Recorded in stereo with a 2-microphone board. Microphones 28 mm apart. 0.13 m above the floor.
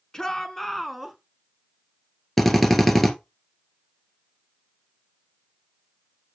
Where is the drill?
10° left (ahead or behind), 1.7 m.